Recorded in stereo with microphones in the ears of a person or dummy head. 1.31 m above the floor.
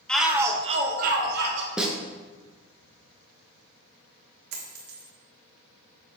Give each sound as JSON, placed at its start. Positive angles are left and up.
{"t": 0.1, "sound": "a shout", "side_deg": 5, "distance_m": 1.0}
{"t": 1.8, "sound": "a snare drum", "side_deg": 0, "distance_m": 0.9}
{"t": 4.5, "sound": "a dropped coin", "side_deg": -60, "distance_m": 1.4}